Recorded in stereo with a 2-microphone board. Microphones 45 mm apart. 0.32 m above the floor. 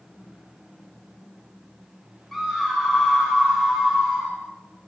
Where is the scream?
5° left (ahead or behind), 3 m.